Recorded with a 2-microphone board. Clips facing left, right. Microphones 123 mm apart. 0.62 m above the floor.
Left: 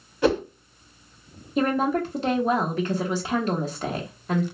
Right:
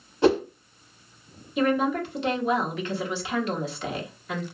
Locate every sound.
0.2 s a whoosh: 25° right (ahead or behind), 1.3 m
1.6 s a woman speaking: 35° left (ahead or behind), 1.0 m